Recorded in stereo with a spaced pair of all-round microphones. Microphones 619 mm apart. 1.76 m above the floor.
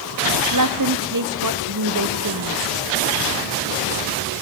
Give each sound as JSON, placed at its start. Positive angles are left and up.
{"t": 0.5, "sound": "a woman speaking", "side_deg": -30, "distance_m": 1.6}